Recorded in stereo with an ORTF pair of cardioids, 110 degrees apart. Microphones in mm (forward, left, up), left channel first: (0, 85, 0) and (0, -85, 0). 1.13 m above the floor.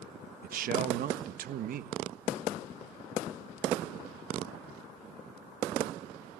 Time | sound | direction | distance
0.4 | a man speaking | 60° right | 1.3 m